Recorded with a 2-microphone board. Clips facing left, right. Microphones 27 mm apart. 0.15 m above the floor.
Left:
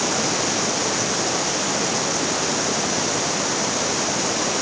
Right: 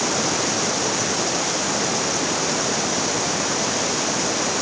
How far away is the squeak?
I don't hear a squeak.